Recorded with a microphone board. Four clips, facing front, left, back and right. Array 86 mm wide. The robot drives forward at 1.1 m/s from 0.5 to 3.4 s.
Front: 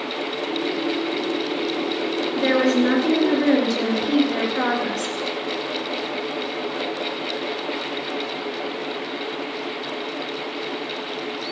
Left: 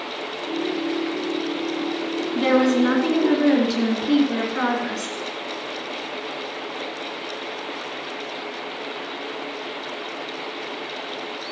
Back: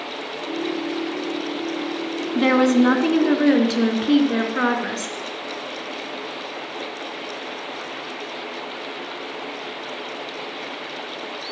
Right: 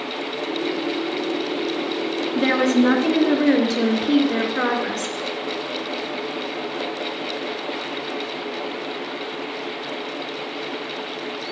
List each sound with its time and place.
2.4 s a woman speaking: 175° left, 2.5 m